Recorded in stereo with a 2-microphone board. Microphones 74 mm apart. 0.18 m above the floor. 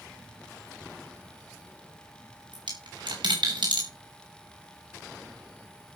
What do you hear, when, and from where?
2.5 s a dropped coin: 90° right, 4.5 m